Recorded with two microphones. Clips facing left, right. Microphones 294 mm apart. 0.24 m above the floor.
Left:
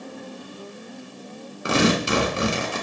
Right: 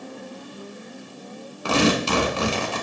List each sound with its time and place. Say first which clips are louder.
1.6 s tearing paper: even; 20° left (ahead or behind), 0.6 m